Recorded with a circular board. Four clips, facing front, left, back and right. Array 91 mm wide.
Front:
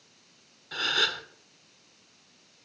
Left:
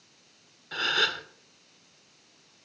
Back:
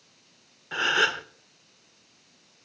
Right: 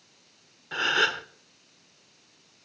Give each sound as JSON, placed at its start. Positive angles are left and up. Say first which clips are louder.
{"t": 0.7, "sound": "a gasp", "louder": "right 3 dB, back 6 dB", "azimuth_deg": -150, "distance_m": 0.8}